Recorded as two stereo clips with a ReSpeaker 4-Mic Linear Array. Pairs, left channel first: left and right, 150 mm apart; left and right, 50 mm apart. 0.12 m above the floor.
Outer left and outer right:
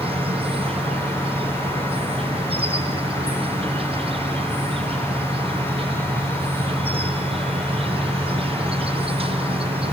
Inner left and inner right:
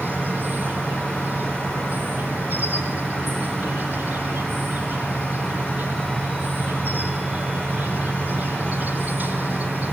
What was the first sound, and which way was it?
An insect, 45° right (ahead or behind).